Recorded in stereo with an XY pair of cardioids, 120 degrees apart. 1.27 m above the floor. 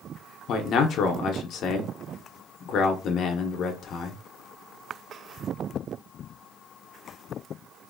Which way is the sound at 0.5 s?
60° left.